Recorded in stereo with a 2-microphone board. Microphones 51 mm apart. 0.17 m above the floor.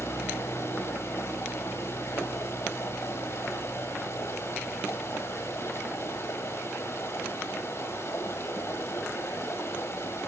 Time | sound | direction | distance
0.0 | running water | 65° left (ahead or behind) | 1.6 m